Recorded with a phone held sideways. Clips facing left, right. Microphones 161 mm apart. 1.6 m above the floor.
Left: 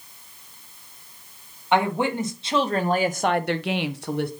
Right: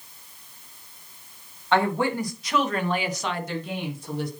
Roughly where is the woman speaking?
Centre.